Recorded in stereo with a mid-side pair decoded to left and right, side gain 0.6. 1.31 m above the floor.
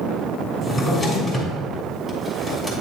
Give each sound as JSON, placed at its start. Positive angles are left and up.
{"t": 0.6, "sound": "a drawer", "azimuth_deg": 30, "distance_m": 3.5}